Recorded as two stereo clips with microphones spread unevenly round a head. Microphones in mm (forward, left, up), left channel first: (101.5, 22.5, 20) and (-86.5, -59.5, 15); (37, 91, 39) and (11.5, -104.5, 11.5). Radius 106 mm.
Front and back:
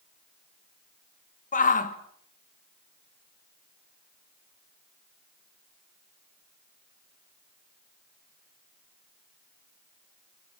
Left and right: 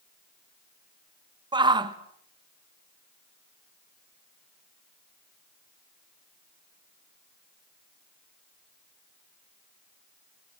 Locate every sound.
1.5 s a shout: 30° right, 2 m